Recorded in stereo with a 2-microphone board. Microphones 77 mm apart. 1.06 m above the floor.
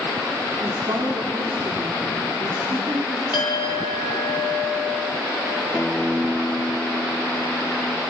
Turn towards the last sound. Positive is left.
turn(degrees=10)  # may be behind; listen again after turning